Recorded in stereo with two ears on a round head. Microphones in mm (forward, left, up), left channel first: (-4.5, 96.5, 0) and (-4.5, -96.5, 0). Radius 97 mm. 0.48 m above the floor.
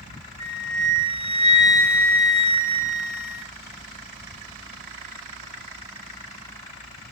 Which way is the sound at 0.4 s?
30° right (ahead or behind).